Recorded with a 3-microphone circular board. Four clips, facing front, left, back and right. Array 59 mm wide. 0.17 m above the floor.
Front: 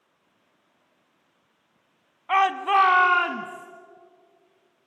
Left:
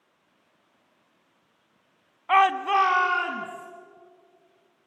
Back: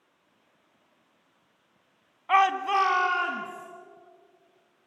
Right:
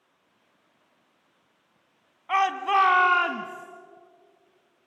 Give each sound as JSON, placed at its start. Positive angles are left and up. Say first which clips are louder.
{"t": 2.3, "sound": "a shout", "louder": "left 3 dB, front 2 dB", "azimuth_deg": 85, "distance_m": 1.0}